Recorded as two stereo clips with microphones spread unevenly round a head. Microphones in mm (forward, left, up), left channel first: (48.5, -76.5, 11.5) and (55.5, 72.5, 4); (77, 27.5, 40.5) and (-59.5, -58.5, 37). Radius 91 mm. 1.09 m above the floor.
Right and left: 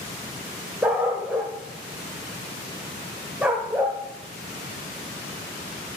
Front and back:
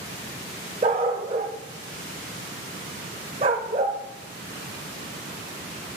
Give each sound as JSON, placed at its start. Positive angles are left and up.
{"t": 0.8, "sound": "a dog barking", "azimuth_deg": 170, "distance_m": 0.9}